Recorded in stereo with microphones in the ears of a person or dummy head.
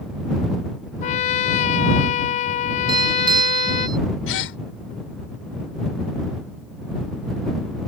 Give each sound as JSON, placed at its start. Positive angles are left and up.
{"t": 1.0, "sound": "a trumpet", "side_deg": 45}
{"t": 2.9, "sound": "a doorbell", "side_deg": -25}
{"t": 4.3, "sound": "a gasp", "side_deg": 75}